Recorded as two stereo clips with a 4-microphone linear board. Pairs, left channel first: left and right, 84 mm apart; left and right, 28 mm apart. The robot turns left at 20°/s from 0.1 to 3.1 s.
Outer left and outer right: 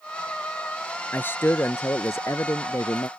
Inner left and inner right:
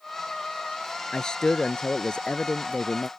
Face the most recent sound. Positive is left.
turn(degrees=100)